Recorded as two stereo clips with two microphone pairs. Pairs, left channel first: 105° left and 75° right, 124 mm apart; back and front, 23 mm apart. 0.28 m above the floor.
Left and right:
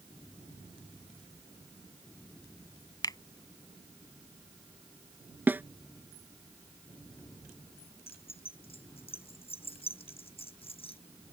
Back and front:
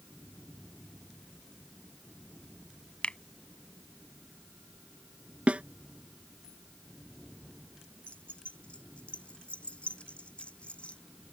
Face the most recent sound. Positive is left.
turn(degrees=145)